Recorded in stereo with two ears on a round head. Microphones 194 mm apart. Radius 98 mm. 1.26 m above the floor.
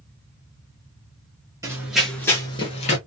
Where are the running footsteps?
15° right (ahead or behind), 1.2 m; by 3.0 s 35° left (ahead or behind), 1.4 m.